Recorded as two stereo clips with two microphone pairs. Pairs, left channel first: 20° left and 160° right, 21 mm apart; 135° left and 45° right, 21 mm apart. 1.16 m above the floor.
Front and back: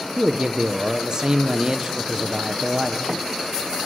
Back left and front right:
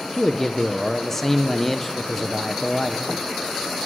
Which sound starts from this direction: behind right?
A man speaking, at 0.2 s.